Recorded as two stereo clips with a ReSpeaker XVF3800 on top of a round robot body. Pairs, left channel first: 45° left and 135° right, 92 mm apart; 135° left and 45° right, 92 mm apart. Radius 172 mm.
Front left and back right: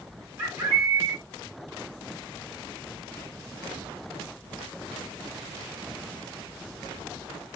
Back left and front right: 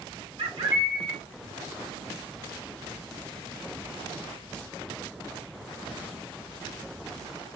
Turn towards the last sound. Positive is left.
turn(degrees=-70)